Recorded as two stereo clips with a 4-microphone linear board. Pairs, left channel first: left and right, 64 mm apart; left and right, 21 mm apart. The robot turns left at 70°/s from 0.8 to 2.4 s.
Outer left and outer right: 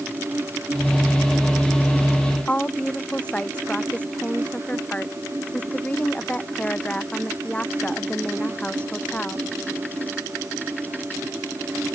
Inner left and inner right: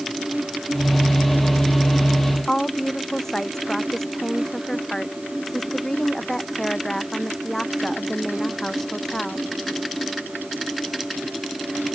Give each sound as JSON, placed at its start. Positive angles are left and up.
{"t": 2.5, "sound": "a woman speaking", "side_deg": 20}